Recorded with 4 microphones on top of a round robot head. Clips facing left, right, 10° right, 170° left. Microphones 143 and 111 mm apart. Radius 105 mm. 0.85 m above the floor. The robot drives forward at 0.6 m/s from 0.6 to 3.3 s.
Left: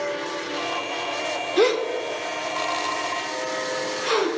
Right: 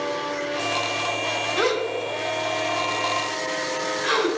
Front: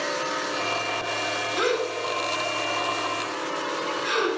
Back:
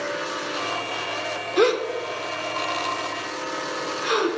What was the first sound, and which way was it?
A gasp, 150° left.